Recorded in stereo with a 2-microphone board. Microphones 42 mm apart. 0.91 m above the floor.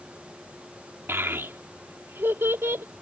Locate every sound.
1.1 s a child speaking: 75° right (ahead or behind)